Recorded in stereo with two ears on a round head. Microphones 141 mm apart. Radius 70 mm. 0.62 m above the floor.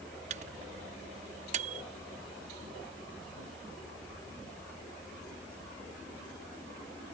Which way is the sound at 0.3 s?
45° right (ahead or behind).